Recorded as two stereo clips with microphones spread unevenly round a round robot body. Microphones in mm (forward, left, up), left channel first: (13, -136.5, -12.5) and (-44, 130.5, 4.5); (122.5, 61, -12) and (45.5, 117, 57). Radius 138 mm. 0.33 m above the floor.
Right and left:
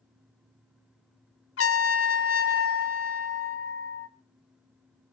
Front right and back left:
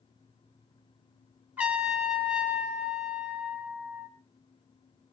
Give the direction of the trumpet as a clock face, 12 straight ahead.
4 o'clock.